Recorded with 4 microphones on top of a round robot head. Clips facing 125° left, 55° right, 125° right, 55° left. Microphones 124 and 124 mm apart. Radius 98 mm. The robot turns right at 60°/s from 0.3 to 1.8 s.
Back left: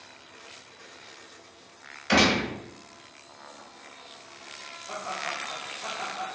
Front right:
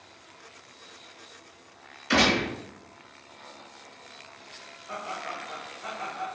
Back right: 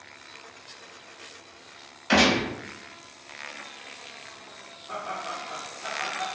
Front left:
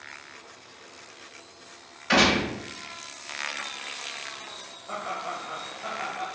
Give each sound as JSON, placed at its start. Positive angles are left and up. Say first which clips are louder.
{"t": 2.1, "sound": "a gunshot", "louder": "back left 1 dB, back right 1 dB", "azimuth_deg": 150, "distance_m": 1.2}
{"t": 4.9, "sound": "laughter", "louder": "back left 1 dB, front left 1 dB", "azimuth_deg": 85, "distance_m": 1.6}